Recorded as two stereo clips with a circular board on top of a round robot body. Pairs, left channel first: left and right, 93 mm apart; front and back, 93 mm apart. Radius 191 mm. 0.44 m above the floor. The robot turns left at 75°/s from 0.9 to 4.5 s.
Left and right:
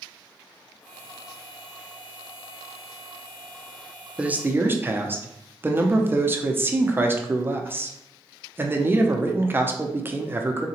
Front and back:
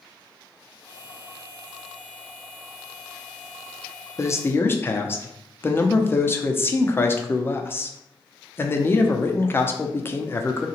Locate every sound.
4.2 s a man speaking: 20° right, 0.8 m; by 10.7 s 45° right, 0.8 m